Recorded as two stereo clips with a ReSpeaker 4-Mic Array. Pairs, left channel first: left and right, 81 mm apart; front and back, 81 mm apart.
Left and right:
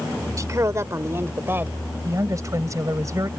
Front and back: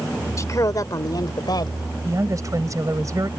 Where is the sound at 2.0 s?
135° right.